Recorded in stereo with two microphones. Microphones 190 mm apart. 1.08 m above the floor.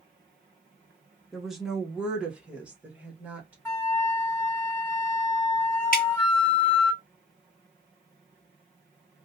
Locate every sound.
1.3 s a woman speaking: centre (ahead or behind), 0.7 m; by 3.5 s 10° right (ahead or behind), 1.5 m
3.6 s a flute: 10° left (ahead or behind), 1.7 m
5.9 s dripping: 50° left (ahead or behind), 1.0 m